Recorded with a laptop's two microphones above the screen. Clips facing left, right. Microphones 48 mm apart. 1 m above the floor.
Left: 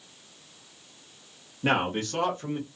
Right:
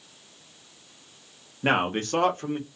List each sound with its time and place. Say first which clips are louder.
1.6 s a man speaking: right 2 dB; 25° right (ahead or behind), 0.8 m; by 2.7 s 50° right (ahead or behind), 1.3 m